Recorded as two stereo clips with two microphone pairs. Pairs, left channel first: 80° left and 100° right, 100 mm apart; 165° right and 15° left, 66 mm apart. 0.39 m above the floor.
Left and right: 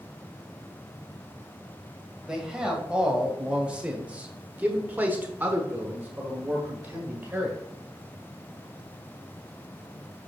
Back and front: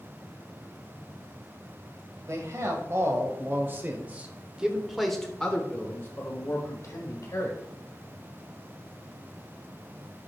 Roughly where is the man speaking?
Ahead.